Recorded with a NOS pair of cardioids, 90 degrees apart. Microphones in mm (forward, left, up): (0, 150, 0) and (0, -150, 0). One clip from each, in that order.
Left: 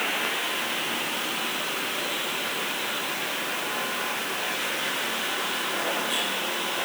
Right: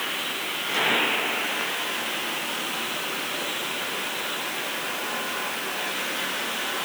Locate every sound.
Only background noise.